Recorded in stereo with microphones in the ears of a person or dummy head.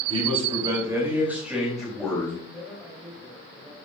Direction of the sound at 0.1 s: 35° right (ahead or behind).